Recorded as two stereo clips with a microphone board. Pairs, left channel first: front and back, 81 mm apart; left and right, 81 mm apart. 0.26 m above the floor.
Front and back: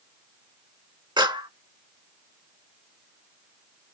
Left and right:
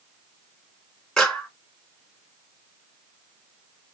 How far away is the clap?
About 2.5 m.